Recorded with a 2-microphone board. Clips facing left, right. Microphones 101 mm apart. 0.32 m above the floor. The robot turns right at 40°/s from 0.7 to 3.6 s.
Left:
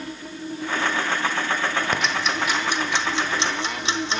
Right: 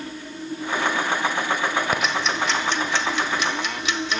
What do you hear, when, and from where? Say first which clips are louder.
1.9 s ticking: right 1 dB; 5° right (ahead or behind), 1.2 m; by 4.2 s 30° left (ahead or behind), 1.2 m